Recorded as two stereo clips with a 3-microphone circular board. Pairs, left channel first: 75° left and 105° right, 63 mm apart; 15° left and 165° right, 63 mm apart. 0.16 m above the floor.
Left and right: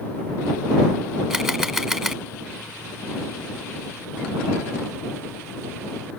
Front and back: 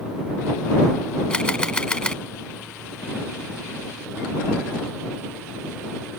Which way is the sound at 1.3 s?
30° right.